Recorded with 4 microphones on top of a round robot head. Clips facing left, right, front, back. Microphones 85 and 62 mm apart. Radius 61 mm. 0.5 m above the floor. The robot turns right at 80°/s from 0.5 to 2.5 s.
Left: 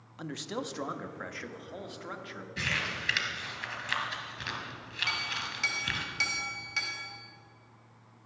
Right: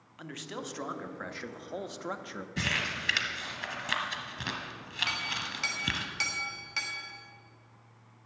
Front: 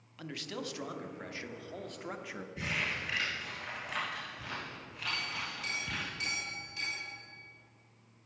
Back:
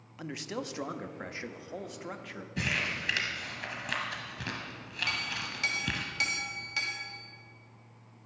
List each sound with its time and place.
0.2 s a man speaking: 135° left, 0.7 m; by 2.5 s 70° right, 0.7 m
2.6 s crumpling: 145° right, 1.8 m
5.1 s a clink: straight behind, 2 m